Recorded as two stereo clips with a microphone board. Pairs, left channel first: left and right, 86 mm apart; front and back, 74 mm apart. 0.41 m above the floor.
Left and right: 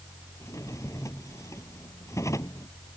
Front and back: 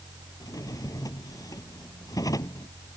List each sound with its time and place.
0.4 s a drawer: 35° left